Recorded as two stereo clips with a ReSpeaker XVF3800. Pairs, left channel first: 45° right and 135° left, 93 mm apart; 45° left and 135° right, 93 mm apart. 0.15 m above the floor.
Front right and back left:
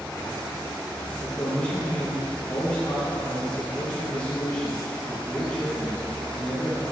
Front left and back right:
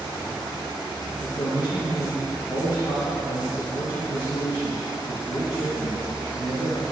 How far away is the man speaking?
About 2 m.